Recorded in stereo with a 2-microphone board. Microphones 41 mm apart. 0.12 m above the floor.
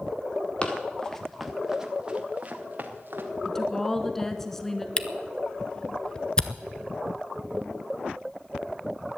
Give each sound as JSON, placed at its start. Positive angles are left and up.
{"t": 0.6, "sound": "running footsteps", "side_deg": 30, "distance_m": 2.0}
{"t": 3.5, "sound": "a woman speaking", "side_deg": 10, "distance_m": 1.1}
{"t": 5.0, "sound": "a camera shutter", "side_deg": 20, "distance_m": 0.7}